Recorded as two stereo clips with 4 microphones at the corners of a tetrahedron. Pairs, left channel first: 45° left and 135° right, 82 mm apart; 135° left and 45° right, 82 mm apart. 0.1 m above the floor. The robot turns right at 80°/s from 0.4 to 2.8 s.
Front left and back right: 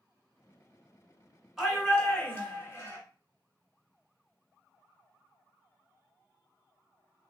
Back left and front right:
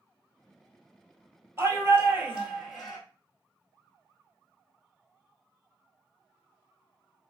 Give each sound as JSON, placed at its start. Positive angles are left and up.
{"t": 1.6, "sound": "a shout", "azimuth_deg": -55, "distance_m": 1.6}